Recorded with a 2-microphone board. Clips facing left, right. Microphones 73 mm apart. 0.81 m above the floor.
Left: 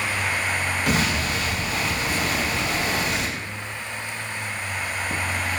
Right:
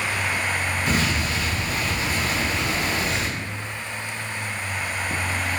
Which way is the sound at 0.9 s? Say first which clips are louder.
Left 1 dB; 65° left (ahead or behind).